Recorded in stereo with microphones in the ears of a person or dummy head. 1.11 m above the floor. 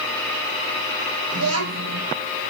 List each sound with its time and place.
1.3 s a child speaking: 75° right (ahead or behind), 4.5 m